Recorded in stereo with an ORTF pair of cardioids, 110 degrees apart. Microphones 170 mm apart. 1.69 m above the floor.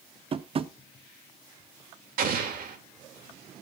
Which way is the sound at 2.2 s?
60° right.